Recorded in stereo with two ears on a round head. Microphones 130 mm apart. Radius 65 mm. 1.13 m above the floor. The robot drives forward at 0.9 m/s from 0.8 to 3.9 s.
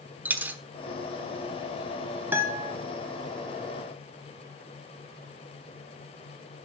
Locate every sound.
0.2 s a dropped coin: 10° right (ahead or behind), 0.9 m
2.3 s a guitar: 15° right (ahead or behind), 2.5 m; by 2.7 s 10° right (ahead or behind), 2.5 m